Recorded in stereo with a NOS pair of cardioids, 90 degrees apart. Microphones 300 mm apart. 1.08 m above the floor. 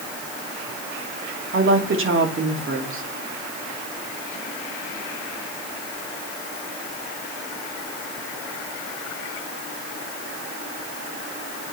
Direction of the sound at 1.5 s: 45° right.